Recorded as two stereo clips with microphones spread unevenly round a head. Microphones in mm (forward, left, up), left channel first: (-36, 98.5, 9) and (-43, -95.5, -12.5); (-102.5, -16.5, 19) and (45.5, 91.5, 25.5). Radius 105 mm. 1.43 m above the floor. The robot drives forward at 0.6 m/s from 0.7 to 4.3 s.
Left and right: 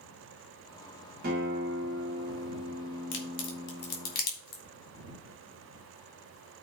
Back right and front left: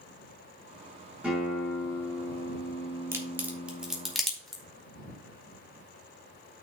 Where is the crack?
110° left, 1.9 m; by 4.6 s 130° left, 2.5 m.